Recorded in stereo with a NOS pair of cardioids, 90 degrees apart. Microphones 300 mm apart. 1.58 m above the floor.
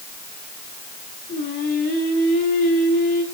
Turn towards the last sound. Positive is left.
turn(degrees=30)